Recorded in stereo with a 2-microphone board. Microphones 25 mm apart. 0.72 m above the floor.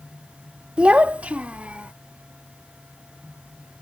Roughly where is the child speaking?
Right.